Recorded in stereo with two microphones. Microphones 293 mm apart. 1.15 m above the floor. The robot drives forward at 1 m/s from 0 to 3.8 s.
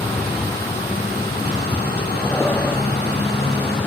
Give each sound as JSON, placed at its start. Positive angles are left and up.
{"t": 0.0, "sound": "a vehicle", "side_deg": 5}